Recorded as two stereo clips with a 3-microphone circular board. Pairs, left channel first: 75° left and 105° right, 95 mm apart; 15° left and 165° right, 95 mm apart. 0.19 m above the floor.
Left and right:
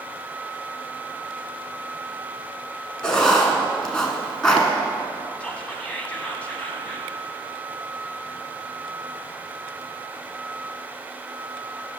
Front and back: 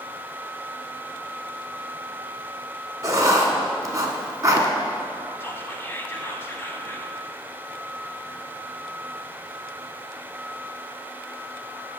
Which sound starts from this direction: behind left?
Writing, at 3.0 s.